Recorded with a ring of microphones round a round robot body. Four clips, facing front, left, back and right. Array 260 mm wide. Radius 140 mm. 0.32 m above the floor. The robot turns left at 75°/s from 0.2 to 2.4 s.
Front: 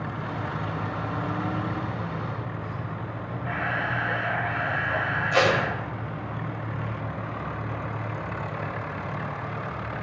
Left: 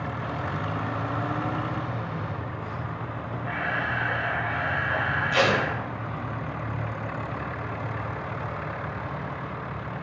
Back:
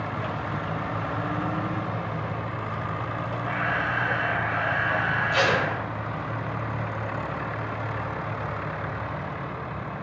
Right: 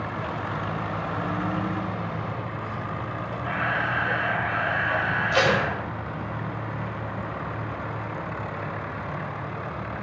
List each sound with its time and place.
3.4 s a camera shutter: 130° right, 1.6 m
5.3 s tape being pulled: 25° right, 1.9 m